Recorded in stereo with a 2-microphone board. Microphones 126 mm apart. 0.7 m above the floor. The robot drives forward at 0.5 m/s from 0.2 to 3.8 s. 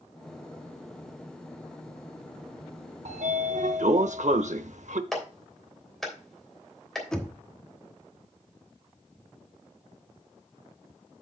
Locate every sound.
3.0 s a sliding door: 65° right (ahead or behind), 0.7 m; by 5.0 s 70° right (ahead or behind), 0.6 m
5.1 s a clap: centre (ahead or behind), 3 m
7.1 s knocking: 5° left (ahead or behind), 1.2 m